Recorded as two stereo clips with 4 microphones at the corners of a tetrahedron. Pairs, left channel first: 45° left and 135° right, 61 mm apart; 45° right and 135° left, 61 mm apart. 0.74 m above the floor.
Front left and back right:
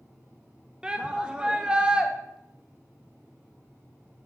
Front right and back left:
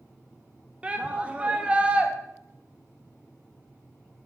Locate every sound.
0.8 s a shout: 170° left, 1.0 m